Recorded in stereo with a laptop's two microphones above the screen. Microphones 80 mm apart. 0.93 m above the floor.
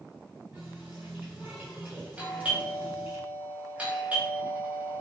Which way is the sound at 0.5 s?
20° right (ahead or behind).